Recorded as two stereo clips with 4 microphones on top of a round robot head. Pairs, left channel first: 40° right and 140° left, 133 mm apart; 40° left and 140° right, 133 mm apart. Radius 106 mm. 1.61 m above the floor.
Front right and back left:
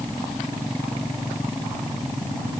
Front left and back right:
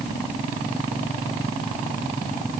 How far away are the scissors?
I don't hear scissors.